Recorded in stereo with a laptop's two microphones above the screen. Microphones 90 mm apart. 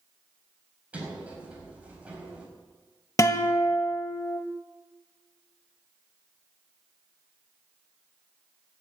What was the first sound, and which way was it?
A sliding door, 15° right (ahead or behind).